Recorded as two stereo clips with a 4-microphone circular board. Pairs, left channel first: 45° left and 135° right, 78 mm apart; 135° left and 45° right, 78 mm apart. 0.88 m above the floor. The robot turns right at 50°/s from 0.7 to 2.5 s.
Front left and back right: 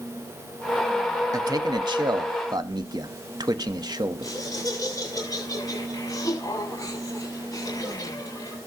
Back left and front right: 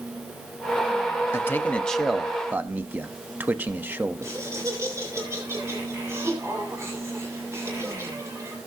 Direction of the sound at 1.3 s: 170° right.